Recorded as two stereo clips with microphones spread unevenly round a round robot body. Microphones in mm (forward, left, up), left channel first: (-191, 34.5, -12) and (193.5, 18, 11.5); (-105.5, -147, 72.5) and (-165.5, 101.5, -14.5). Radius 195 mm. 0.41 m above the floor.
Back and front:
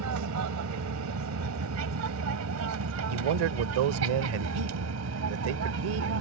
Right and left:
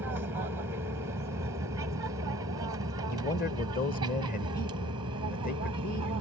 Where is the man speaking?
5° right.